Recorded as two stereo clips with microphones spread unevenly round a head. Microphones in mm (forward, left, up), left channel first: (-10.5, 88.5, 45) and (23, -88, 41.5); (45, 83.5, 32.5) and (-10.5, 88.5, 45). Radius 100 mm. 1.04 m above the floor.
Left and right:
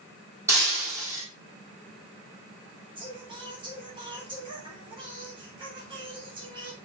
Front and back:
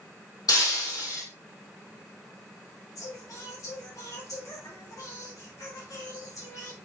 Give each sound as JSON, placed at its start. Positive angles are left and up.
{"t": 0.5, "sound": "breaking glass", "azimuth_deg": -5, "distance_m": 4.0}
{"t": 3.0, "sound": "singing", "azimuth_deg": -15, "distance_m": 3.5}